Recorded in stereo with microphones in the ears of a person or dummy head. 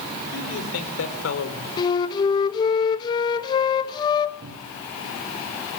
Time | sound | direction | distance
0.3 | a man speaking | 85° left | 3.5 m
1.8 | a flute | 25° left (ahead or behind) | 1.0 m
4.4 | a cupboard door | 60° right (ahead or behind) | 2.5 m